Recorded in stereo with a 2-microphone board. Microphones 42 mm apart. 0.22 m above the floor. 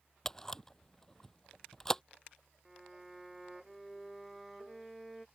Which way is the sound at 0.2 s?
10° left (ahead or behind).